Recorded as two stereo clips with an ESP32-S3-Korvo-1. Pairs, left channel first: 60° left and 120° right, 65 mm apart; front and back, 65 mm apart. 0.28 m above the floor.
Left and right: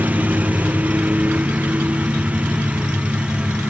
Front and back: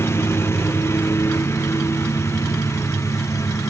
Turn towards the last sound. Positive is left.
turn(degrees=-45)